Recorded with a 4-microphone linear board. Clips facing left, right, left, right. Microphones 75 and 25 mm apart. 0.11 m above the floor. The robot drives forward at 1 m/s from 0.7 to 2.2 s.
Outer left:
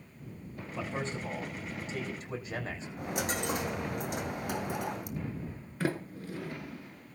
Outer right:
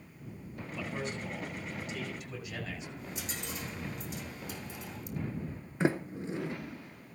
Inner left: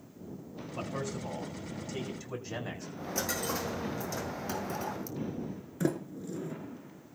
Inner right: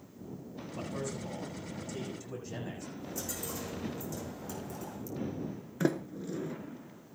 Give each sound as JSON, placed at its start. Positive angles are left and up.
{"t": 0.8, "sound": "a man speaking", "side_deg": 30, "distance_m": 7.5}
{"t": 3.0, "sound": "a dropped coin", "side_deg": 70, "distance_m": 1.6}
{"t": 5.8, "sound": "a sliding door", "side_deg": -25, "distance_m": 1.2}